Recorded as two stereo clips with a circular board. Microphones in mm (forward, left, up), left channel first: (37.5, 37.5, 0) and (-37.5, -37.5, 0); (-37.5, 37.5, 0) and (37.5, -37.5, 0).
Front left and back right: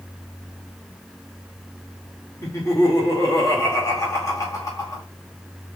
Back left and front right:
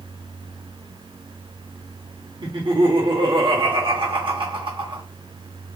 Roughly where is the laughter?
Ahead.